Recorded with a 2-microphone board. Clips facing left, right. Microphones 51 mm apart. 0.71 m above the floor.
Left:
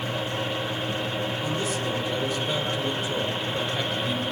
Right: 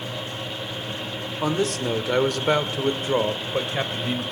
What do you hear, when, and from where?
1.4 s a man speaking: 75° right (ahead or behind), 1.9 m; by 4.2 s 35° right (ahead or behind), 3 m